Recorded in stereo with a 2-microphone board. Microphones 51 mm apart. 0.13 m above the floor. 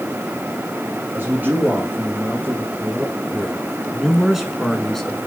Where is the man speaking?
45° right (ahead or behind), 2.5 m; by 5.2 s 10° left (ahead or behind), 1.5 m.